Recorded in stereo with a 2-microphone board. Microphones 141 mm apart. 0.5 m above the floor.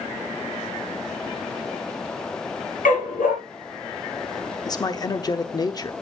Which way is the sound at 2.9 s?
85° left.